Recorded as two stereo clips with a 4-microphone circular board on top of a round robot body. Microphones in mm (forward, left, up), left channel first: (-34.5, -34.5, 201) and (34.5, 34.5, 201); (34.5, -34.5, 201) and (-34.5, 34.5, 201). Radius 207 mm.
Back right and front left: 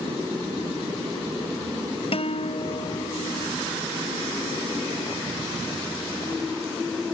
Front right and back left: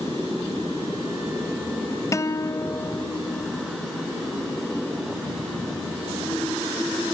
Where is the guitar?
105° right.